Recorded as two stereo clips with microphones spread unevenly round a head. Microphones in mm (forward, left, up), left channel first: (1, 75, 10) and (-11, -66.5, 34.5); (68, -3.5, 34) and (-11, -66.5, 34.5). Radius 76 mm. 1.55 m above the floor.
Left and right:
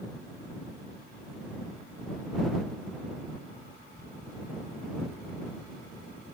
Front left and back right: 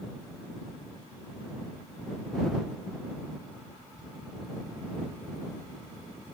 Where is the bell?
No bell in this recording.